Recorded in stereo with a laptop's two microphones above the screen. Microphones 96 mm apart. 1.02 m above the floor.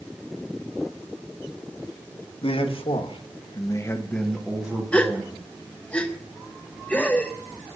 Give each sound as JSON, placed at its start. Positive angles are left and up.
{"t": 2.4, "sound": "a man speaking", "side_deg": 75, "distance_m": 1.6}
{"t": 4.9, "sound": "a gasp", "side_deg": 10, "distance_m": 0.6}